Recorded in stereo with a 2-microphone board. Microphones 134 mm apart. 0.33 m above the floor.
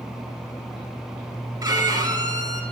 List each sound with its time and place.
1.6 s a violin: 30° right (ahead or behind), 0.7 m